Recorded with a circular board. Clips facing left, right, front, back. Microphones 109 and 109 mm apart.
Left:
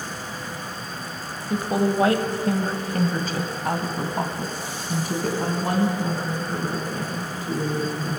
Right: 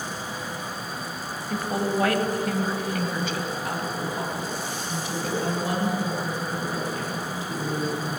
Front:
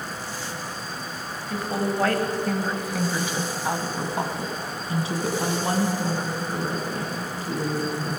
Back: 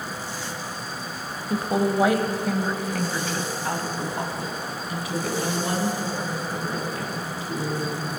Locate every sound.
1.5 s a woman speaking: 150° left, 1.2 m; by 8.2 s 45° left, 4 m